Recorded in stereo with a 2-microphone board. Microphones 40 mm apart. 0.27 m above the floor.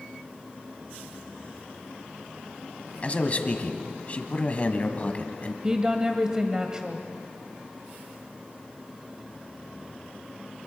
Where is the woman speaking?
20° right (ahead or behind), 1.0 m.